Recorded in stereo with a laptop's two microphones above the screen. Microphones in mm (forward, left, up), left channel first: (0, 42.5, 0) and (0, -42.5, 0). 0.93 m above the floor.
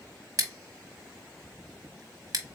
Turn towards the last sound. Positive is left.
turn(degrees=-50)  # may be behind; listen again after turning